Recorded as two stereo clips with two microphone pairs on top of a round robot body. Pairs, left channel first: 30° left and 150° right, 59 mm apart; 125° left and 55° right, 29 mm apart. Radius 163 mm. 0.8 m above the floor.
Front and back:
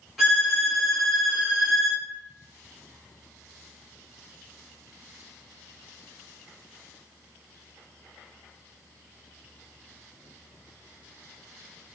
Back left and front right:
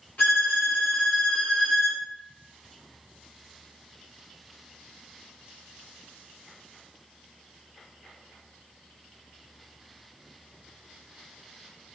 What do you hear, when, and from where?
0.2 s a violin: 125° left, 1.3 m